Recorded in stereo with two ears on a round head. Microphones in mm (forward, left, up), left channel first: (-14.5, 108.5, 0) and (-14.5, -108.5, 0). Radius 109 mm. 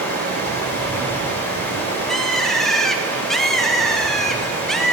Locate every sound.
0.0 s running water: 10° left (ahead or behind), 3.5 m
2.1 s a bird: centre (ahead or behind), 0.8 m